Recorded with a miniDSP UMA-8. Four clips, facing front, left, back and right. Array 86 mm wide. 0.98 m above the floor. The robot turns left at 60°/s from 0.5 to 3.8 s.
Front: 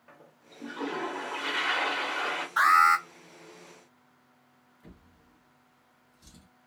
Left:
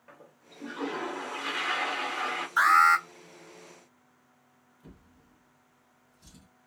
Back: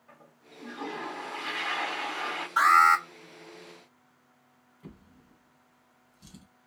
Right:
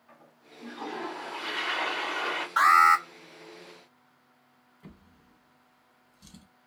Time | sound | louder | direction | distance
0.1 | a toilet flushing | left 1 dB, even | 45° left | 1.2 m
2.6 | an alarm | right 1 dB, back 1 dB | 100° right | 1.7 m
4.8 | a drawer | right 2 dB, back 5 dB | 130° right | 1.2 m